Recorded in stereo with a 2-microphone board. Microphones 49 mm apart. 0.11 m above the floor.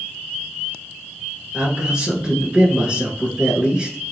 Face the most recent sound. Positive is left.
turn(degrees=-20)  # may be behind; listen again after turning